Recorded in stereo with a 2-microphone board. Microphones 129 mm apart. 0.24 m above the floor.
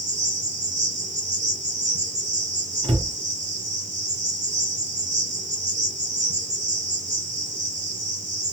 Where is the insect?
60° right (ahead or behind), 2.5 m.